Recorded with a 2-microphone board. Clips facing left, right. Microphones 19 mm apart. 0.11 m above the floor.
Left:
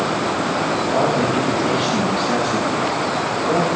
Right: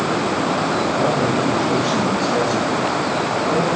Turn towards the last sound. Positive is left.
turn(degrees=50)  # may be behind; listen again after turning